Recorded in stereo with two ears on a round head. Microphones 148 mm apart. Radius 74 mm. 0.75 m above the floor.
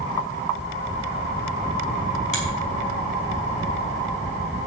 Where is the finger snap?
45° left (ahead or behind), 4.5 m.